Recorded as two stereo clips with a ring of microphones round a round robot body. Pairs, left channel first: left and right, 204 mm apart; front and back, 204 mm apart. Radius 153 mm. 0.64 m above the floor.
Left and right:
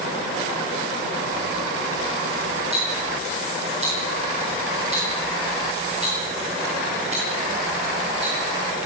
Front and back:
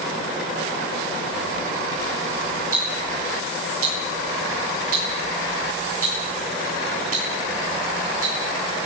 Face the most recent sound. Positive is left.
turn(degrees=-160)